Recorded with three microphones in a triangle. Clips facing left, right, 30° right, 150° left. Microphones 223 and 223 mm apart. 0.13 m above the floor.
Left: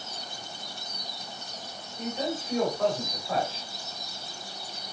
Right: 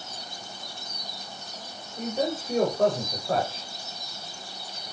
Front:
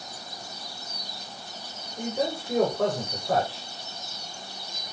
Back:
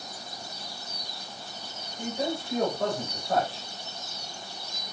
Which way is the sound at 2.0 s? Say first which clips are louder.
Right 3 dB, front 2 dB; 50° right.